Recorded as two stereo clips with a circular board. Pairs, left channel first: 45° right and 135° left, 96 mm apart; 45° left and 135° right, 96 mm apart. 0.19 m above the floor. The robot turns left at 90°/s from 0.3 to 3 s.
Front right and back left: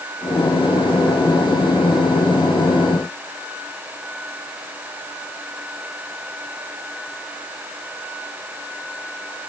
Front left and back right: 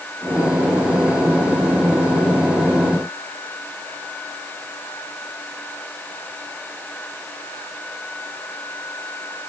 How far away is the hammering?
No hammering in this recording.